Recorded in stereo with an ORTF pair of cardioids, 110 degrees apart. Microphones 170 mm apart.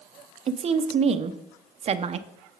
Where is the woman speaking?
40° right, 0.6 m.